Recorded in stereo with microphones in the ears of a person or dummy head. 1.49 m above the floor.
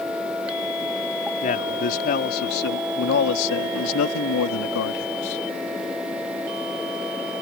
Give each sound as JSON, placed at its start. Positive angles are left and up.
{"t": 1.4, "sound": "a man speaking", "side_deg": 40}